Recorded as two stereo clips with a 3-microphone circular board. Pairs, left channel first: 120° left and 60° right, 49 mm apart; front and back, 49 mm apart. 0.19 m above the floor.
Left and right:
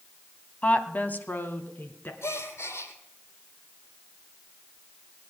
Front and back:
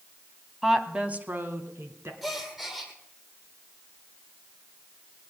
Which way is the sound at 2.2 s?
95° left.